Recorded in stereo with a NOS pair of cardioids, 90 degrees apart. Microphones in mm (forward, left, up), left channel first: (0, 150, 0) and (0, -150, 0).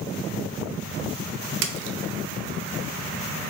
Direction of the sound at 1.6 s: 65° right.